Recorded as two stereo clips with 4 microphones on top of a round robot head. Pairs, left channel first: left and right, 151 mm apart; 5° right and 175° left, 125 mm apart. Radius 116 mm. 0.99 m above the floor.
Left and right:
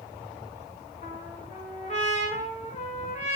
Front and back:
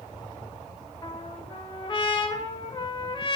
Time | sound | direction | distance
1.0 | a trumpet | 45° left | 2 m